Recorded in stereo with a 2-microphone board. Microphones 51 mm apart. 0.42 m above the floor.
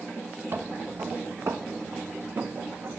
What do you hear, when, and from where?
0.5 s footsteps: 50° right (ahead or behind), 1.0 m; by 3.0 s 75° right (ahead or behind), 2 m